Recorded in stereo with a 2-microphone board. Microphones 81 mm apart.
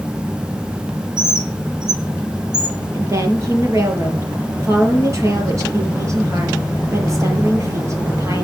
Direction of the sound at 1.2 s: 60° right (ahead or behind).